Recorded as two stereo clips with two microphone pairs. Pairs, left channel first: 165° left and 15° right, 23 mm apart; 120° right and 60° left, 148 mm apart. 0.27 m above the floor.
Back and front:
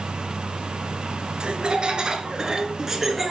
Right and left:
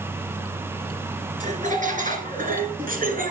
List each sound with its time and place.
1.4 s laughter: 25° left, 3 m; by 3.3 s 65° left, 3 m